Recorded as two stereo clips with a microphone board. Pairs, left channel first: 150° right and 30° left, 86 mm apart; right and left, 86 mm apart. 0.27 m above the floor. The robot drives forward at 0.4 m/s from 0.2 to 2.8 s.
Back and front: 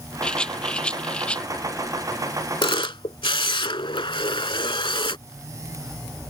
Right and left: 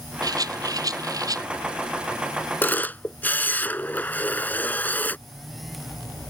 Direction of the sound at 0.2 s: 130° left.